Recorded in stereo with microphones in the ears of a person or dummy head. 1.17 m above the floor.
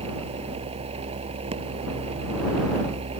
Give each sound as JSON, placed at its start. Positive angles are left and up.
{"t": 0.0, "sound": "a machine running", "side_deg": -30}